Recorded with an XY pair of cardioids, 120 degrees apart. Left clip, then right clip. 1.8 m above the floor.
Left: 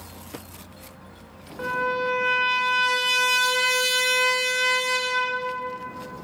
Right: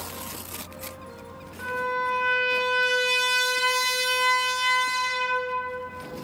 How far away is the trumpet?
About 0.6 m.